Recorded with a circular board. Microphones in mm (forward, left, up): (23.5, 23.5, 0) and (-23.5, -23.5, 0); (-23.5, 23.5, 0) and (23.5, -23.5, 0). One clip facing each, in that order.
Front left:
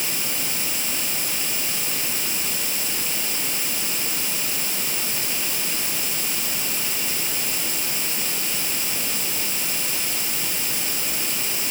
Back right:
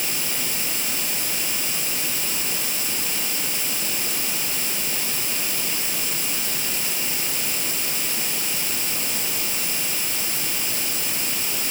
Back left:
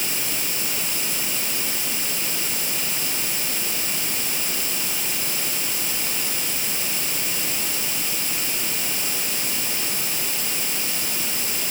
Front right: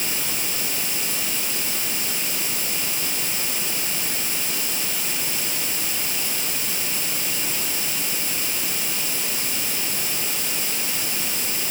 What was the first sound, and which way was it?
Only background noise.